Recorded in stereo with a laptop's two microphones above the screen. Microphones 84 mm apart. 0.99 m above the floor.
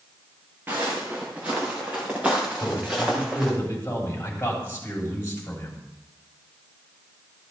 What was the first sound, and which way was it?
Footsteps, 25° right (ahead or behind).